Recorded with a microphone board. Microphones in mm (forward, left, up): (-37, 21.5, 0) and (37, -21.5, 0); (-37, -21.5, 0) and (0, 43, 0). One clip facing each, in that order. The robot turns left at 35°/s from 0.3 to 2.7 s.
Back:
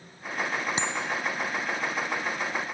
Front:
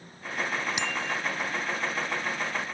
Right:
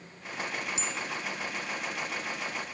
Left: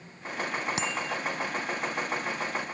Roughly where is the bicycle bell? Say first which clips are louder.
Back 1 dB, left 4 dB; left.